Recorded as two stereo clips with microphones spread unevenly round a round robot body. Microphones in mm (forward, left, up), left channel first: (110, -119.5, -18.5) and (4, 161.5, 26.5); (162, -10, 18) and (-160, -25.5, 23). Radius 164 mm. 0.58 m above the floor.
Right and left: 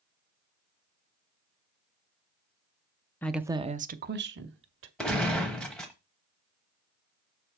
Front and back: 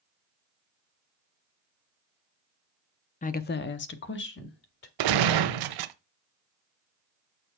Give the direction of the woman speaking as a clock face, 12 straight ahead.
1 o'clock.